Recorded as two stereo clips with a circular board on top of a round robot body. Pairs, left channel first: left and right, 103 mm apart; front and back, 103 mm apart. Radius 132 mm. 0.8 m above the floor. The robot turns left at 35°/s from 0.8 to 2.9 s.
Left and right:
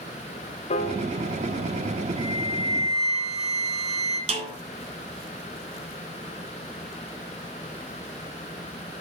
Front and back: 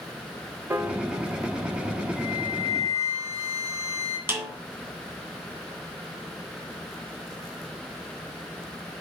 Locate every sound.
0.7 s a piano: 105° left, 1.0 m; by 2.1 s 65° left, 1.0 m
2.2 s a flute: 95° right, 3.5 m; by 4.2 s 120° right, 3.5 m
4.3 s a snare drum: 115° right, 3 m